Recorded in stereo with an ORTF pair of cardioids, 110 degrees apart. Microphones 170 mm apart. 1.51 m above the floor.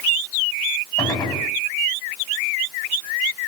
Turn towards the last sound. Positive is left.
turn(degrees=20)